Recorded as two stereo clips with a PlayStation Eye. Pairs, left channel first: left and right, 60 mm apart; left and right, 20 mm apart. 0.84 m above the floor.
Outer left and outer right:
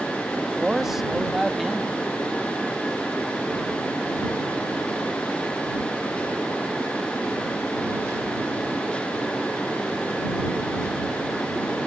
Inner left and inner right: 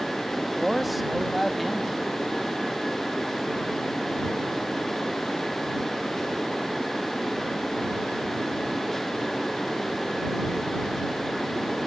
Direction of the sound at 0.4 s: 5° right (ahead or behind).